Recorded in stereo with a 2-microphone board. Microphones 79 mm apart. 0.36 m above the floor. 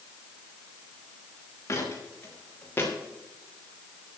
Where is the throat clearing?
No throat clearing in this recording.